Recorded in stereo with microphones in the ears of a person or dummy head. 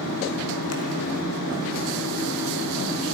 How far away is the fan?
About 2 m.